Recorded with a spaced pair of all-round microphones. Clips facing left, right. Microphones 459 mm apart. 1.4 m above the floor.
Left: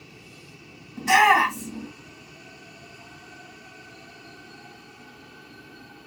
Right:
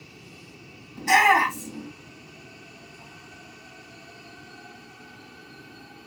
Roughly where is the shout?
Left.